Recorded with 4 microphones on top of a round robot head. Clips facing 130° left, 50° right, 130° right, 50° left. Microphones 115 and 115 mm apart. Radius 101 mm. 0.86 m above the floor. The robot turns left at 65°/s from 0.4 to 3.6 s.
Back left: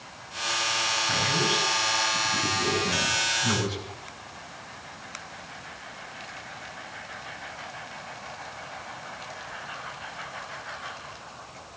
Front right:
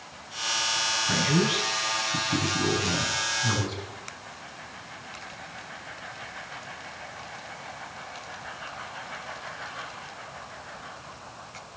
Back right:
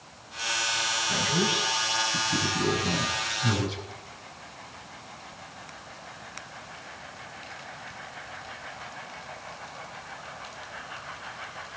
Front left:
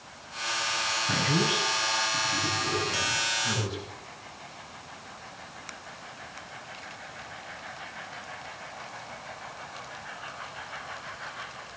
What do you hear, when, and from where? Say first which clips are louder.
1.1 s a man speaking: front right 4 dB, front left 1 dB; 20° left, 8.5 m; by 3.8 s 145° right, 8.5 m